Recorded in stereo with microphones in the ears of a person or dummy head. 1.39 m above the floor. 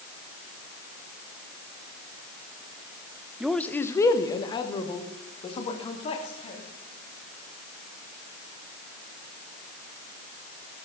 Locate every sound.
3.4 s a man speaking: 5° right (ahead or behind), 0.6 m; by 6.6 s 30° left (ahead or behind), 3 m